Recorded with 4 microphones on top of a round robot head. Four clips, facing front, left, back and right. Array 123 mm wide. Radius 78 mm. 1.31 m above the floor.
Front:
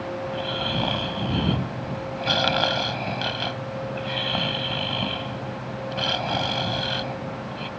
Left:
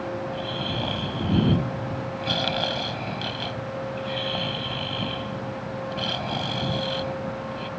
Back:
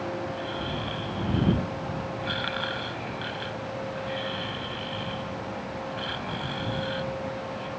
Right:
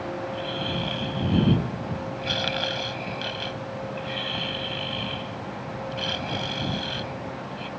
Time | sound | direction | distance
0.3 | snoring | 20° left | ?